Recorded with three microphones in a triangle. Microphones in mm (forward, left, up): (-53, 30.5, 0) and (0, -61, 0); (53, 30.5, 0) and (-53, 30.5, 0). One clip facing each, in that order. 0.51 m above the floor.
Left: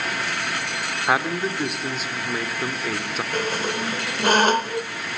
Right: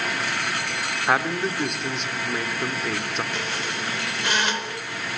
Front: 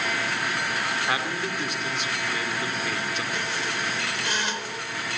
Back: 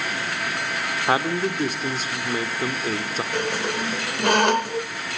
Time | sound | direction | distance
1.1 | a man speaking | 155° right | 1.7 m
3.3 | a squeak | 160° left | 1.2 m